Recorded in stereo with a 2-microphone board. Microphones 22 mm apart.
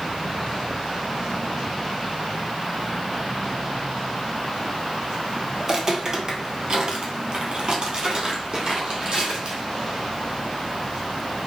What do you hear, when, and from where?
5.6 s footsteps: 25° right (ahead or behind), 1.2 m; by 9.6 s 35° right (ahead or behind), 2.0 m